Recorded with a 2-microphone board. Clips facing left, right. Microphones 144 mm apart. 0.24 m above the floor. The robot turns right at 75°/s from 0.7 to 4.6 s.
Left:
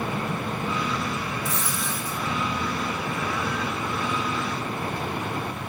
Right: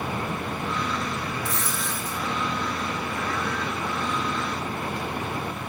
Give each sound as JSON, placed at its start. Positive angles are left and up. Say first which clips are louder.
{"t": 1.4, "sound": "a dropped coin", "louder": "left 1 dB", "azimuth_deg": 25, "distance_m": 3.5}